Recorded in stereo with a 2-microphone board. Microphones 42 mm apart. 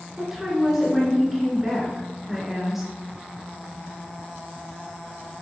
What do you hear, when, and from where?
0.2 s a woman speaking: 5° right (ahead or behind), 1.2 m